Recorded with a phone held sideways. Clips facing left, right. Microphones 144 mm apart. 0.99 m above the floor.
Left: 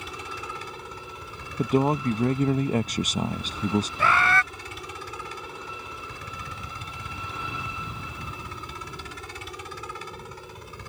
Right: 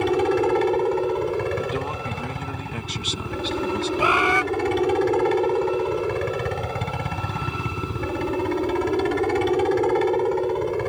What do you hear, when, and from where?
0.0 s a helicopter: 70° right (ahead or behind)
1.6 s a man speaking: 40° left (ahead or behind)
4.0 s a bird: 15° right (ahead or behind)